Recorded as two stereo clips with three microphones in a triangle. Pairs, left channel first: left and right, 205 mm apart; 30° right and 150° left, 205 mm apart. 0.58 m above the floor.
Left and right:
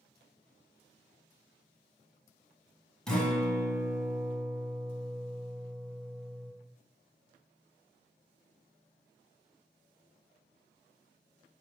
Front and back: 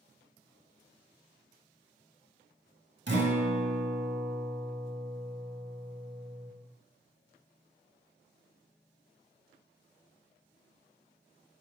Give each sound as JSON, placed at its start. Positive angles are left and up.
{"t": 3.1, "sound": "a guitar", "azimuth_deg": 175, "distance_m": 0.7}